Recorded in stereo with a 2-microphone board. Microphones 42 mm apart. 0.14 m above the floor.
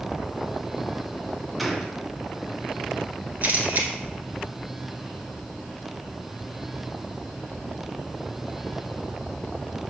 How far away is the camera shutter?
About 1.2 m.